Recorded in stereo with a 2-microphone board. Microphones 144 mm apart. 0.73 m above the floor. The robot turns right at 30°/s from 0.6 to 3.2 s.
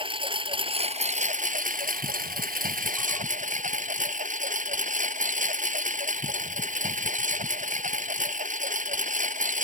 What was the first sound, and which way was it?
A lawn mower, 140° right.